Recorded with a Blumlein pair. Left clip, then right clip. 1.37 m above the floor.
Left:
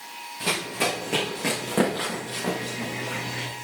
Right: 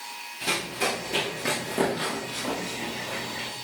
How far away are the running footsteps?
About 5 m.